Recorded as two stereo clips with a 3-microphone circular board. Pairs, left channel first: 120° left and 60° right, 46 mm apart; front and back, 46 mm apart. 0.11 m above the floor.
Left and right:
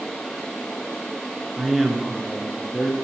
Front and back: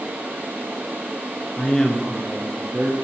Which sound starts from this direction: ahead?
A man speaking, at 1.6 s.